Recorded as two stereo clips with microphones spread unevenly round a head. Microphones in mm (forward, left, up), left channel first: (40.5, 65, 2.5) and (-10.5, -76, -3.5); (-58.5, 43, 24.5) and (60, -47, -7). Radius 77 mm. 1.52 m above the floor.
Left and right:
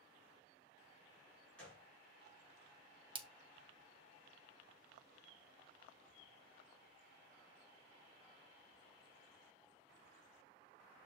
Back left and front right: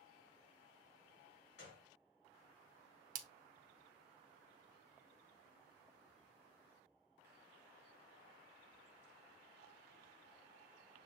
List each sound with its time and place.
1.6 s a gunshot: 150° left, 3.5 m
3.1 s a splash: 65° right, 0.6 m